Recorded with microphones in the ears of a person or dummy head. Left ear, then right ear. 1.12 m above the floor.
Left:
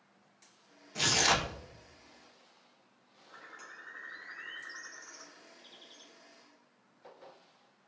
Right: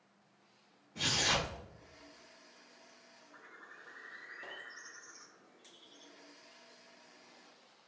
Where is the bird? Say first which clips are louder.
Left 6 dB; 40° left (ahead or behind), 0.7 m.